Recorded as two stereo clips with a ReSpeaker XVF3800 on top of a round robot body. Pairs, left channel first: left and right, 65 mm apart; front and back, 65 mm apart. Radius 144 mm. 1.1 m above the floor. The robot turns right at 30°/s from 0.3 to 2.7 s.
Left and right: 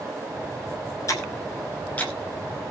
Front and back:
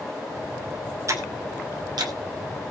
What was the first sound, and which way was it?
Ticking, 135° left.